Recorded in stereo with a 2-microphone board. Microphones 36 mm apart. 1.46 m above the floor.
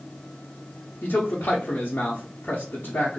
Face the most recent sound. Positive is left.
turn(degrees=80)